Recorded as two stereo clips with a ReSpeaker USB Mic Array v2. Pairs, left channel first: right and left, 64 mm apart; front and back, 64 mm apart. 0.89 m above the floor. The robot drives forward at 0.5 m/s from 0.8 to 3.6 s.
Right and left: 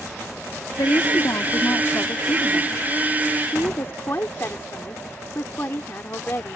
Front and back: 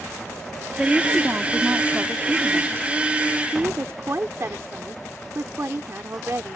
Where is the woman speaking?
105° right; by 6.6 s 135° right.